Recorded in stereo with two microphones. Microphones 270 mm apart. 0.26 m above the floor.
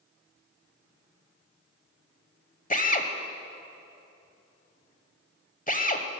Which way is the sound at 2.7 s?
30° left (ahead or behind).